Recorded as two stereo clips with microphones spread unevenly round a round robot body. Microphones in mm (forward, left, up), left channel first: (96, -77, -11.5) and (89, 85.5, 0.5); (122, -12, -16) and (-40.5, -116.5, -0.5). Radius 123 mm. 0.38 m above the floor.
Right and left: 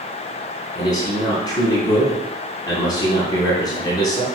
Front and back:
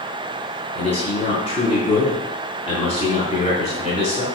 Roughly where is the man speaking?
Ahead right.